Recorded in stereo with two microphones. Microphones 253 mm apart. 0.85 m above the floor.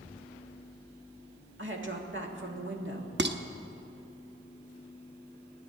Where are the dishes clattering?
45° right (ahead or behind), 0.8 m.